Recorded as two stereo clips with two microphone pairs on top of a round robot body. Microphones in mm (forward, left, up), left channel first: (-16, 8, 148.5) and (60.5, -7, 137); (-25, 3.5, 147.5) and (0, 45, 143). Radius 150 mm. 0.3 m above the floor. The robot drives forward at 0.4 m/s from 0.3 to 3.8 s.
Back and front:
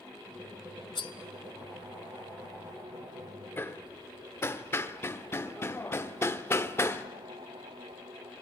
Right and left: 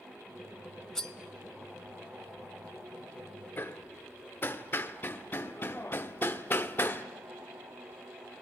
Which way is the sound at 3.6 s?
130° right.